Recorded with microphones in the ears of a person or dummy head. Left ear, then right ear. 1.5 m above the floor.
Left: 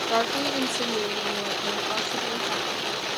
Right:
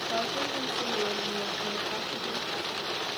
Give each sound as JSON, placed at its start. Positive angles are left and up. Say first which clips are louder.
{"t": 0.1, "sound": "a woman speaking", "louder": "left 6 dB", "side_deg": 55, "distance_m": 1.3}